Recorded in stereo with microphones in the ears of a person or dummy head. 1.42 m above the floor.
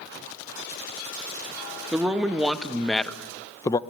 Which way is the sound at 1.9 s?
10° right (ahead or behind).